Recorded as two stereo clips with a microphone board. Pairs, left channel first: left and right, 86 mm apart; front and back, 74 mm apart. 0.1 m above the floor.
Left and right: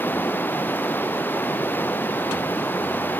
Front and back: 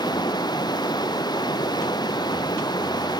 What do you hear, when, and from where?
0.0 s running water: 25° left